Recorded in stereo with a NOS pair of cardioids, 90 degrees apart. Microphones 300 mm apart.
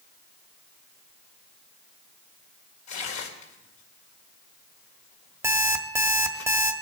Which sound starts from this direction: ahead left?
Tearing paper, at 2.9 s.